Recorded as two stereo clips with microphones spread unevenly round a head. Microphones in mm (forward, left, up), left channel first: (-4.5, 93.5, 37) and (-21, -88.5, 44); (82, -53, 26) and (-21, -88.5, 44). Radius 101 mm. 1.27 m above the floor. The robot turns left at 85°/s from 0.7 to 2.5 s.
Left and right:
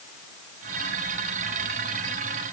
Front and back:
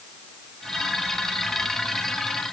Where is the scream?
No scream in this recording.